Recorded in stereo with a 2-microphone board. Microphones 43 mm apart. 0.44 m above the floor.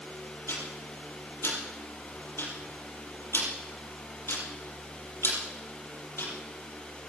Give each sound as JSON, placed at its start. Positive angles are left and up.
{"t": 0.5, "sound": "ticking", "side_deg": 75, "distance_m": 6.5}